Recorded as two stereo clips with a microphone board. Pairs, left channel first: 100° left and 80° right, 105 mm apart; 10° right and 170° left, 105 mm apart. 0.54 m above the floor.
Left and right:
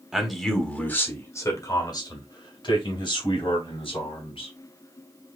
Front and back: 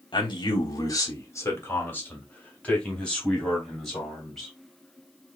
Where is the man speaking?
5° left, 1.2 m; by 4.5 s 75° left, 3 m.